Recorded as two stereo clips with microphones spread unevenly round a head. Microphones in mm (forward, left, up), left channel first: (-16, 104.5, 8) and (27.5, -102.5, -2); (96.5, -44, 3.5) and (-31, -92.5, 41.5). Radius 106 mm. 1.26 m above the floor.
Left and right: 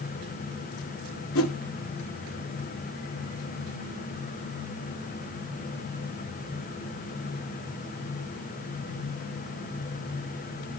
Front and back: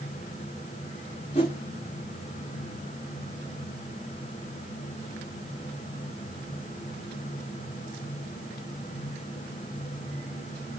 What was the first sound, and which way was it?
A whoosh, 90° left.